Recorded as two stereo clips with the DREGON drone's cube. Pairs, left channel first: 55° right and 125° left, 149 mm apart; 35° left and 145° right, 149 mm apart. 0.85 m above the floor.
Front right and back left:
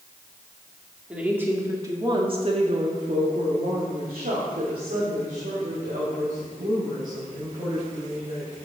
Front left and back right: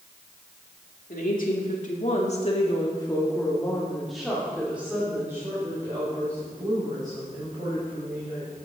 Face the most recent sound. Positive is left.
turn(degrees=155)